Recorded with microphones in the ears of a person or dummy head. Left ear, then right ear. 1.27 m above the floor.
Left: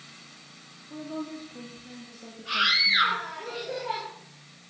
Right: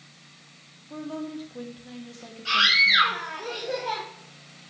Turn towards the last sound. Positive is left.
turn(degrees=-75)  # may be behind; listen again after turning